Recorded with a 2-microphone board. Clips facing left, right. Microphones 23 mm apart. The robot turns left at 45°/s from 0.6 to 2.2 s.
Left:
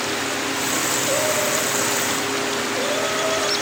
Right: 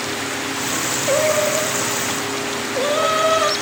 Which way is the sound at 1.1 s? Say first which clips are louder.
Right 7 dB; 45° right.